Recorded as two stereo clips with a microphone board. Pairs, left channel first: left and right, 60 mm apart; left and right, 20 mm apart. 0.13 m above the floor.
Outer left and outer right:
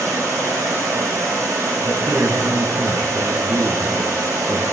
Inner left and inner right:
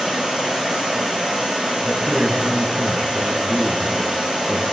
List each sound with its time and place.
0.0 s running water: 80° right, 4 m
1.8 s a man speaking: 50° right (ahead or behind), 1.7 m